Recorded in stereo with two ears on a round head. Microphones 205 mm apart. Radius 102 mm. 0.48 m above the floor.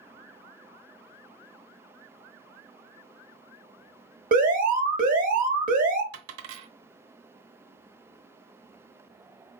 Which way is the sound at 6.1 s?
65° right (ahead or behind).